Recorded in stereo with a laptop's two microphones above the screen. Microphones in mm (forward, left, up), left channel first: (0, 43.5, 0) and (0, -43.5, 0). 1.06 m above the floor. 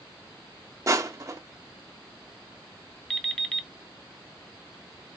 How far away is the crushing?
About 0.7 m.